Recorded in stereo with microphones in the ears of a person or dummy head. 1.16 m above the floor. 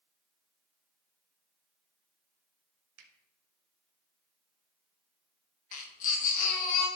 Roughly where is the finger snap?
Right.